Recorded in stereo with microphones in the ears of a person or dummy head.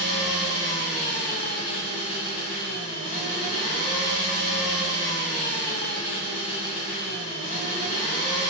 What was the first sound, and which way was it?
An engine running, 30° left (ahead or behind).